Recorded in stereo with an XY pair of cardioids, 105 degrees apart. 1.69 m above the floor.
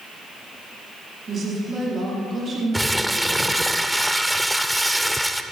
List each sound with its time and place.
1.3 s a woman speaking: 40° right, 4.5 m
2.7 s crumpling: straight ahead, 0.6 m